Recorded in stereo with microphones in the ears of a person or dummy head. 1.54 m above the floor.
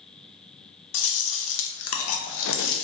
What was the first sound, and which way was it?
Chewing, 70° left (ahead or behind).